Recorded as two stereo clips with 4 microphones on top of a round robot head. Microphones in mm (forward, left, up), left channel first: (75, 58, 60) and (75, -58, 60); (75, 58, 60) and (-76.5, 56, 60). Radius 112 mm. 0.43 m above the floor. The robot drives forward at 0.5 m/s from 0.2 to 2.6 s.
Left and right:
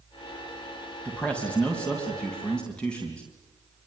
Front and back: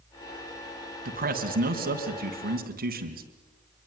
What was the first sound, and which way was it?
A man speaking, 170° left.